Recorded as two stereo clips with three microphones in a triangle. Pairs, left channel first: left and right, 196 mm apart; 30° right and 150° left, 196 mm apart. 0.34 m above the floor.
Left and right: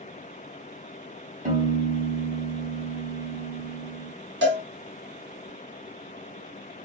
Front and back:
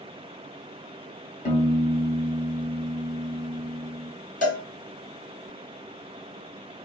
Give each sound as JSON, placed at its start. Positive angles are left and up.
{"t": 1.4, "sound": "a piano", "azimuth_deg": -55, "distance_m": 2.0}
{"t": 4.4, "sound": "a cowbell", "azimuth_deg": -80, "distance_m": 2.0}